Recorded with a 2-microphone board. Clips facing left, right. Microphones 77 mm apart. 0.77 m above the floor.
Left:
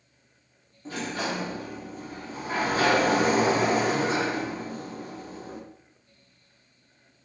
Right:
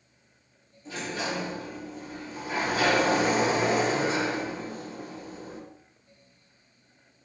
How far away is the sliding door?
About 1.0 m.